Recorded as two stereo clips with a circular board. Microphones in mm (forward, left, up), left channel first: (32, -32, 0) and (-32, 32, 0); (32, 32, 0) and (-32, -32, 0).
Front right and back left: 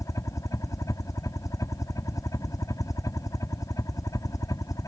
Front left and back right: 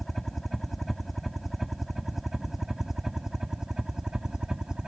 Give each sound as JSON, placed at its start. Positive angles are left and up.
{"t": 0.0, "sound": "a helicopter", "azimuth_deg": -40}